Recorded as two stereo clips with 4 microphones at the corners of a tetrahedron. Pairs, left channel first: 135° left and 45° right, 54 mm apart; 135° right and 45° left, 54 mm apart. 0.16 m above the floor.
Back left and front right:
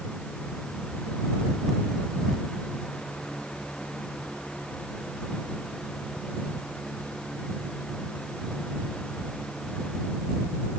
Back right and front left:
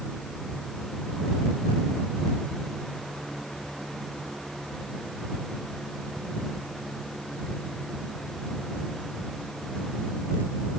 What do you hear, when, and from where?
Only background noise.